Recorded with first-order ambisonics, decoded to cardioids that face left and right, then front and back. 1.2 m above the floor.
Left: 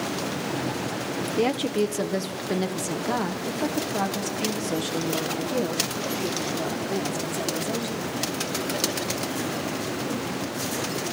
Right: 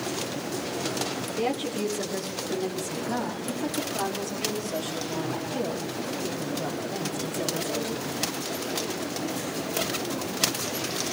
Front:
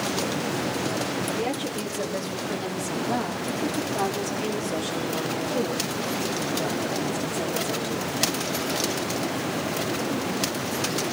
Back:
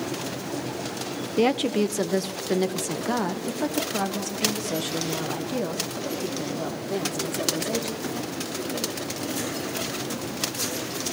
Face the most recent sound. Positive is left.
turn(degrees=130)